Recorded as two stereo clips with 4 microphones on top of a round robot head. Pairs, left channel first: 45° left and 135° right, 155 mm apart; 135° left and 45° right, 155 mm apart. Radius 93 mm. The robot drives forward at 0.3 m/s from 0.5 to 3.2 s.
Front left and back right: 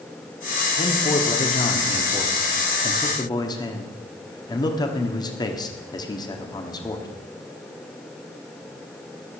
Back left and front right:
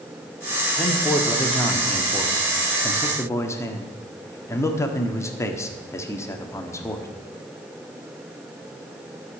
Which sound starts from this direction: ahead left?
A man speaking, at 0.8 s.